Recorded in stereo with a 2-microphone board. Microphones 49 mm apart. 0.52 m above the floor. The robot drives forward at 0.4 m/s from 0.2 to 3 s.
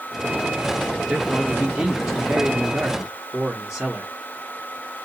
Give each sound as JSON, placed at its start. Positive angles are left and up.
{"t": 1.1, "sound": "a man speaking", "side_deg": -10, "distance_m": 1.2}